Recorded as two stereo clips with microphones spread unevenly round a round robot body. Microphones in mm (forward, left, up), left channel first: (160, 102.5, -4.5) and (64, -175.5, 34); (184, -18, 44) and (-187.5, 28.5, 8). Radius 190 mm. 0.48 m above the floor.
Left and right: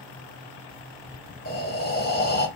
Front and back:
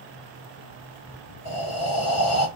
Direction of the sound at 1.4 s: 35° left.